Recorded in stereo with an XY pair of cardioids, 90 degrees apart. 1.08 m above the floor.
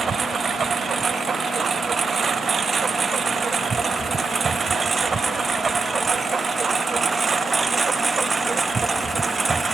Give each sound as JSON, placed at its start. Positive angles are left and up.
{"t": 0.0, "sound": "a lawn mower", "azimuth_deg": -50}